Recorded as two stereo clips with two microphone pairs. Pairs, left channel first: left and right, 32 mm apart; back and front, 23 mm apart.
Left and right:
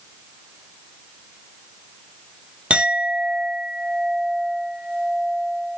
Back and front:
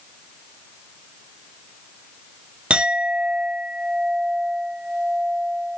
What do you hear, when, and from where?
2.7 s a clink: 45° right, 0.9 m